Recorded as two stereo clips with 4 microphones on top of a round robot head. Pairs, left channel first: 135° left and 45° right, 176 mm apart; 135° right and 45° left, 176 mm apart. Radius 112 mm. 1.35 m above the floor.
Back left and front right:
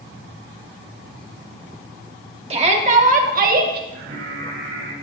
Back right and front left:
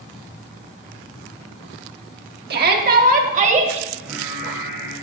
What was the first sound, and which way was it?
A shout, 10° left.